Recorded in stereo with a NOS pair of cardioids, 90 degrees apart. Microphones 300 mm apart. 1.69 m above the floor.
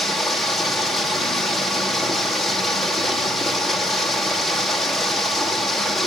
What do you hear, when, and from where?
0.0 s running water: straight ahead, 2.5 m